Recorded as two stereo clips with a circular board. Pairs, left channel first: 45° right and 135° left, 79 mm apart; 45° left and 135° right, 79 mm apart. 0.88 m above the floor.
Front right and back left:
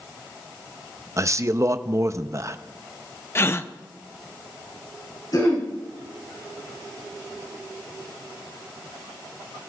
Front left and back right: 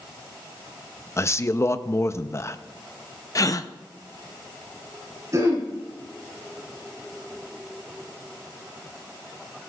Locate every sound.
1.2 s a man speaking: 90° left, 0.6 m
3.4 s a gasp: 10° left, 0.5 m
5.3 s throat clearing: 85° right, 3.5 m